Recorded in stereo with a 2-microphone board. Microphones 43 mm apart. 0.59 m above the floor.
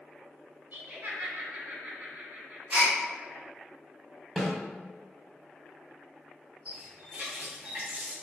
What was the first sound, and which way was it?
Laughter, 40° right (ahead or behind).